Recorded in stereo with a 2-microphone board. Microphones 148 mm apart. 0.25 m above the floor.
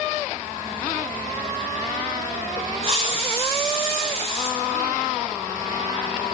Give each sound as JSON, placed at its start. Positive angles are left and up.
{"t": 2.8, "sound": "a hiss", "side_deg": -45, "distance_m": 0.9}